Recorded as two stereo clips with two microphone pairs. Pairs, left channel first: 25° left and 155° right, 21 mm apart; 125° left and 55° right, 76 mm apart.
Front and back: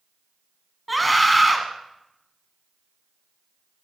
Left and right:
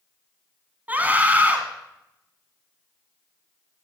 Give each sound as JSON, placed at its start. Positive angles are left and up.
{"t": 0.9, "sound": "a scream", "azimuth_deg": -75, "distance_m": 1.1}